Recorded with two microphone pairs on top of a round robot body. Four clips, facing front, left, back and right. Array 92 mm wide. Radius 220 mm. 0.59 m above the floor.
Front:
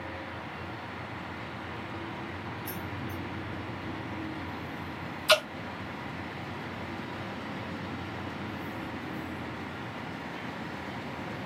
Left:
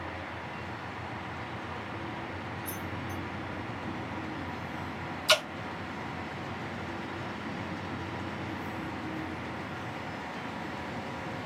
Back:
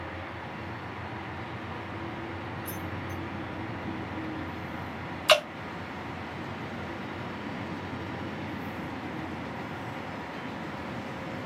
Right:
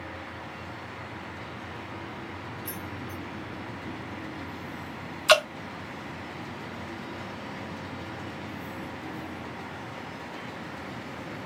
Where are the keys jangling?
55° right, 1.4 m.